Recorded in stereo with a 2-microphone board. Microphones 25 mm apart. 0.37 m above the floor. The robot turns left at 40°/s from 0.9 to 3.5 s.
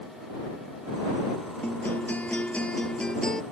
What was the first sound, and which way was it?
A guitar, 90° left.